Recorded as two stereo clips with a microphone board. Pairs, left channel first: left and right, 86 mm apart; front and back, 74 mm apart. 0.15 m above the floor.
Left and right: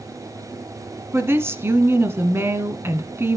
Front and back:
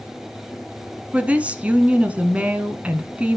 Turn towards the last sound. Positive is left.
turn(degrees=-120)